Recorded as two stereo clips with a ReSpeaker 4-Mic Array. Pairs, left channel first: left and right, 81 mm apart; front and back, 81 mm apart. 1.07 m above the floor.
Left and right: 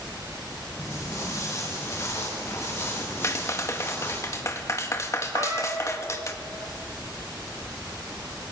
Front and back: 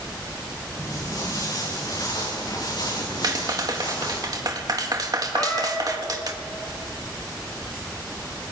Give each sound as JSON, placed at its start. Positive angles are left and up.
{"t": 0.8, "sound": "footsteps", "azimuth_deg": 40, "distance_m": 8.0}
{"t": 3.2, "sound": "a clap", "azimuth_deg": 140, "distance_m": 1.5}
{"t": 5.3, "sound": "a cat meowing", "azimuth_deg": -60, "distance_m": 5.5}